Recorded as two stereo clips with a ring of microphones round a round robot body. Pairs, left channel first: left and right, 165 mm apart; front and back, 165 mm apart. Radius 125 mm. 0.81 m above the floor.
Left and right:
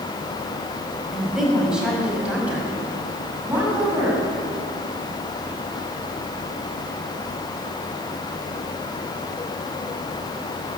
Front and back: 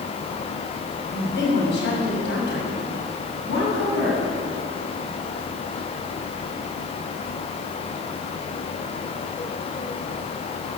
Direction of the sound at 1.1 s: Straight ahead.